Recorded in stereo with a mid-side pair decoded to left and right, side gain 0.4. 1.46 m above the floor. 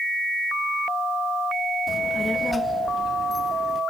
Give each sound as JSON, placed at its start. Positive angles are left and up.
{"t": 1.9, "sound": "a child speaking", "azimuth_deg": 15, "distance_m": 1.5}